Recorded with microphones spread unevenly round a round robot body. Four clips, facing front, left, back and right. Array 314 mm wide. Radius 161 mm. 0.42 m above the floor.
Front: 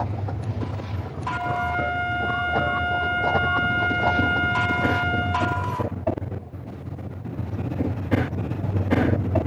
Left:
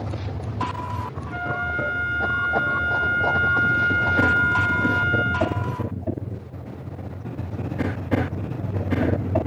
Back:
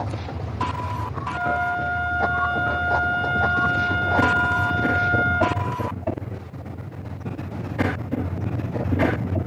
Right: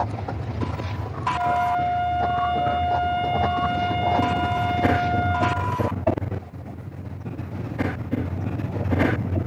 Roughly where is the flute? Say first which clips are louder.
Right 6 dB, back 2 dB; ahead left.